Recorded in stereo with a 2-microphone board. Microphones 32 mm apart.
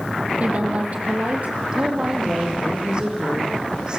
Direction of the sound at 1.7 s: 30° right (ahead or behind).